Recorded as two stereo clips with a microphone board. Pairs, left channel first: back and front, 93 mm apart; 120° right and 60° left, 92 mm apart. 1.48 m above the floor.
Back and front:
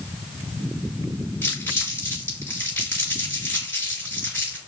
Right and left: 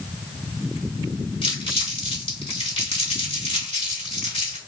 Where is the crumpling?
115° right, 2.5 m.